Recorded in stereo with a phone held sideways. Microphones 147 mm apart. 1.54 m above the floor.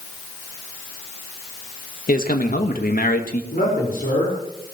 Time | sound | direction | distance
2.1 | a man speaking | 75° left (ahead or behind) | 1.9 m
3.5 | a man speaking | 80° left | 5 m